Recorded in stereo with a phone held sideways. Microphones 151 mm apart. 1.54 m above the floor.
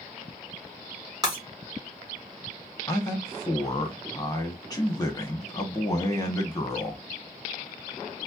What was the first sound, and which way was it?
Breaking glass, 25° right (ahead or behind).